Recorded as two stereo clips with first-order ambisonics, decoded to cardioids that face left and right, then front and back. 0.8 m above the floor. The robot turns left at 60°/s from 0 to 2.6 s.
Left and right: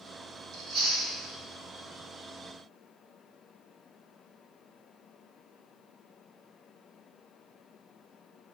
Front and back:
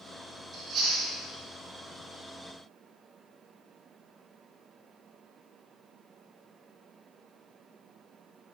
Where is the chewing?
120° right, 1.2 m; by 1.1 s 155° right, 1.2 m.